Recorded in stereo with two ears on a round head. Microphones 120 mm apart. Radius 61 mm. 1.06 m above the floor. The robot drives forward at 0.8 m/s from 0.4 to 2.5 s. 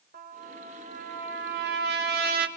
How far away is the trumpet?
About 2.5 m.